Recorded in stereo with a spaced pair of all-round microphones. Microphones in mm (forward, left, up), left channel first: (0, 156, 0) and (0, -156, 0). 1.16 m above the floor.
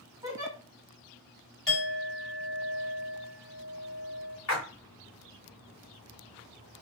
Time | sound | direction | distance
0.2 | a giggle | 10° right (ahead or behind) | 1.8 m
1.7 | a clink | 40° left (ahead or behind) | 1.3 m
4.5 | a splash | 50° left (ahead or behind) | 1.6 m